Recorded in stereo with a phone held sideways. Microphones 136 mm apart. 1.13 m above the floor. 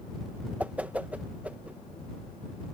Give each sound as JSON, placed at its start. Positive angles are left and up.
{"t": 0.6, "sound": "a whoosh", "side_deg": -10}